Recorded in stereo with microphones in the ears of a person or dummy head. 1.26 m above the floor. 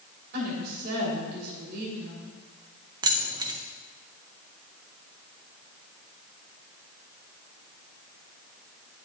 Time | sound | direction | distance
0.3 | a woman speaking | 60° right (ahead or behind) | 3.5 m
3.0 | keys jangling | 20° right (ahead or behind) | 0.5 m